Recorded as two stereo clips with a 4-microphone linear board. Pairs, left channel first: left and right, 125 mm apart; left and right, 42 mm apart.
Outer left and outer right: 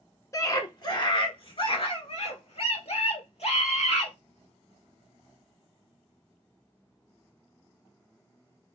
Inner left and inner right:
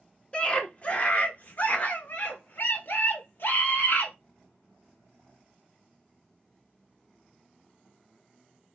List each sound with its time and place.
0.3 s a scream: 30° left (ahead or behind), 1.1 m; by 4.1 s 65° left (ahead or behind), 2.5 m